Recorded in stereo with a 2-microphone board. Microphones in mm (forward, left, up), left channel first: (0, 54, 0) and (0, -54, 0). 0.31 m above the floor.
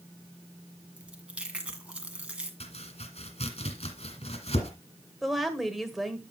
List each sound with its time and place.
1.0 s chewing: 10° right (ahead or behind), 1.6 m
2.6 s chopping: 75° left (ahead or behind), 2.0 m
5.2 s a woman speaking: centre (ahead or behind), 1.4 m